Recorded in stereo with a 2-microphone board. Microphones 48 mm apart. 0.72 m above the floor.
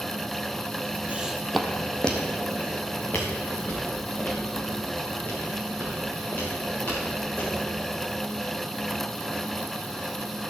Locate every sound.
1.1 s footsteps: 25° right (ahead or behind), 0.9 m; by 7.5 s 35° left (ahead or behind), 10.5 m